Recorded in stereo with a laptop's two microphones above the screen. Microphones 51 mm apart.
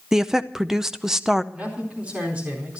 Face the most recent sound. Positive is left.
turn(degrees=-25)  # may be behind; listen again after turning